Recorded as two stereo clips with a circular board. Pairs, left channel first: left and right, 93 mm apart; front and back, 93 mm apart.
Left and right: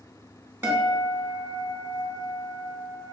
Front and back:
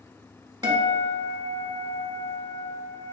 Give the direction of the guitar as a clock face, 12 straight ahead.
5 o'clock.